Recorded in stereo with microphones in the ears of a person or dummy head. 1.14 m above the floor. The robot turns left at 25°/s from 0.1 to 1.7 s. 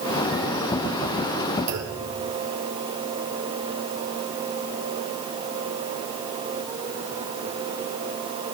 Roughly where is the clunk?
Right.